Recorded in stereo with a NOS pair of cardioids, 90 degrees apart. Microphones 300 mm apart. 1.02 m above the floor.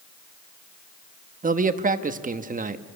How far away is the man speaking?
About 1.3 m.